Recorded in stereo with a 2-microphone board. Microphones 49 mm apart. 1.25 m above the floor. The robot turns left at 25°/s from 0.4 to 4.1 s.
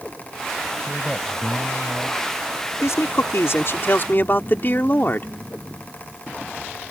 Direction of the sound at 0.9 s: Straight behind.